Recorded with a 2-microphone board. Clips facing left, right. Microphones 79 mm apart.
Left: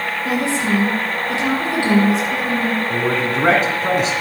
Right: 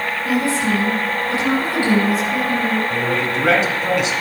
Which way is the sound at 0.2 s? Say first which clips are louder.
Right 1 dB; 20° left (ahead or behind).